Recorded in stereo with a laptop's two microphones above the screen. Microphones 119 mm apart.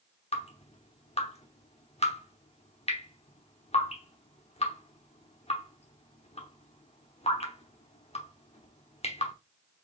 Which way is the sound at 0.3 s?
60° left (ahead or behind).